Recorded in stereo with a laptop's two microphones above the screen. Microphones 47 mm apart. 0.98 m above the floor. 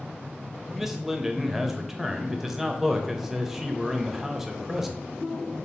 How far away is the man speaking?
About 0.7 m.